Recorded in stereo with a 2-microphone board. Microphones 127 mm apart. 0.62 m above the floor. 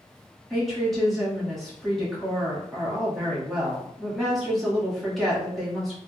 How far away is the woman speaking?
About 1.2 m.